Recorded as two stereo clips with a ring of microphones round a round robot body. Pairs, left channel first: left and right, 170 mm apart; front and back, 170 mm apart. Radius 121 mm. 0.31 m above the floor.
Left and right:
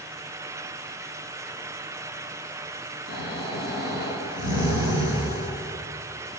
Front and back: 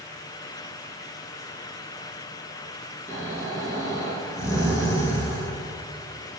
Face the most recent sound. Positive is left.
turn(degrees=75)